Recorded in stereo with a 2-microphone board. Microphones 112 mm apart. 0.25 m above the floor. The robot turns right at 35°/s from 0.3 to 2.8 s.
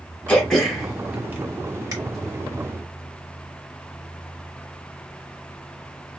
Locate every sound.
0.3 s throat clearing: 15° left (ahead or behind), 1.1 m; by 1.9 s 30° right (ahead or behind), 1.1 m